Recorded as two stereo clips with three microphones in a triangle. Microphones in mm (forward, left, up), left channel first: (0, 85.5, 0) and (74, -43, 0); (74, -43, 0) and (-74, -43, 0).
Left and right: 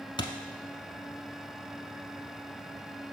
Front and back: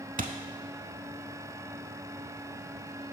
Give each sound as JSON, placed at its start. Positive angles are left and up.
{"t": 0.2, "sound": "a thud", "azimuth_deg": 175, "distance_m": 0.7}